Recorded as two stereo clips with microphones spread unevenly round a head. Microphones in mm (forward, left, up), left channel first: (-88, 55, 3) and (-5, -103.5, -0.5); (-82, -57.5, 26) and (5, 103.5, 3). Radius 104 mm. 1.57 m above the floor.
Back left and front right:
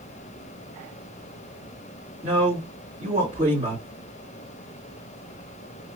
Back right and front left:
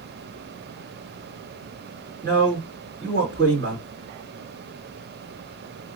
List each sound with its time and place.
2.2 s a man speaking: 10° left, 2.5 m